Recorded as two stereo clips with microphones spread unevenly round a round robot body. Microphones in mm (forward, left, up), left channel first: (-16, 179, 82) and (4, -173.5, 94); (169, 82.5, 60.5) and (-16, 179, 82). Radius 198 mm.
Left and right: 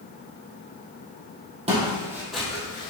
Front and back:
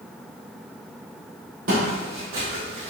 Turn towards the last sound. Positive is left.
turn(degrees=170)